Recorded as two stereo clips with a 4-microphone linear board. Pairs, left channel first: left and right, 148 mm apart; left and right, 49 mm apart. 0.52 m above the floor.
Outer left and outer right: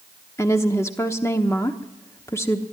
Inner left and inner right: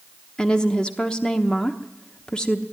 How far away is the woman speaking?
About 1.0 m.